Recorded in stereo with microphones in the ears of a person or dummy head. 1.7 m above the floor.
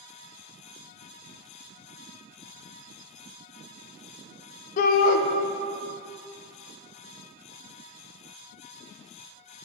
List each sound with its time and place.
4.8 s a shout: 55° left (ahead or behind), 0.9 m